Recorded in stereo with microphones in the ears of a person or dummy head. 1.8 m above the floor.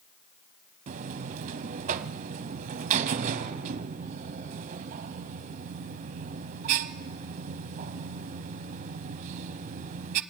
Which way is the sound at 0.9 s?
40° right (ahead or behind).